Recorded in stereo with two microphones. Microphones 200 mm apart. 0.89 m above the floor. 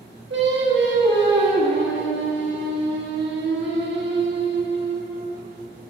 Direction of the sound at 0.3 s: 70° right (ahead or behind).